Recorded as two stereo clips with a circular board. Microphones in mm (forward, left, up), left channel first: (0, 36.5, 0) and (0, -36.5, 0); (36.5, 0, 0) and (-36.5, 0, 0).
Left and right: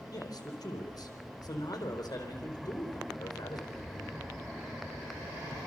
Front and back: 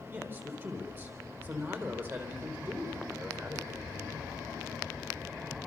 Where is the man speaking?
125° left, 4.5 m.